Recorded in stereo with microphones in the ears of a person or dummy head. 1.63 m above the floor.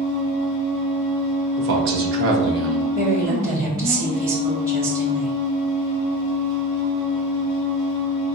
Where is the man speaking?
55° right (ahead or behind), 0.9 m.